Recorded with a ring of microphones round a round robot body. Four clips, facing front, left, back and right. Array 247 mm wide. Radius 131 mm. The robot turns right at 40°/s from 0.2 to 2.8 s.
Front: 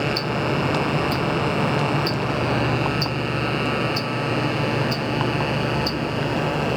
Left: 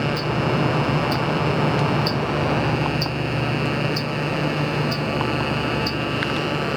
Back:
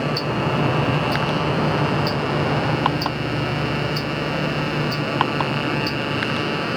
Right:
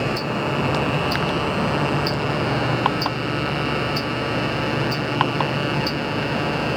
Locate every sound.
0.2 s ticking: 60° right, 0.8 m; by 6.8 s 45° left, 0.8 m